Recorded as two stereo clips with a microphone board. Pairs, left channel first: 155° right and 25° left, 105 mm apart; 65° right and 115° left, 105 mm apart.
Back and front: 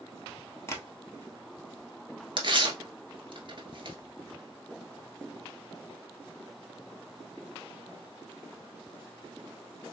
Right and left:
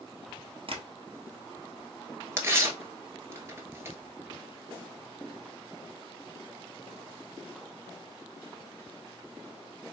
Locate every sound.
0.7 s tapping: 140° left, 1.2 m
2.4 s tearing paper: 50° left, 1.0 m